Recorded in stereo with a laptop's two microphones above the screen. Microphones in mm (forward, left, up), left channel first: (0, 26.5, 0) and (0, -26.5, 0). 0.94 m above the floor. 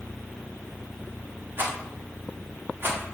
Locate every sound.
1.6 s a rattle: 45° right (ahead or behind), 1.3 m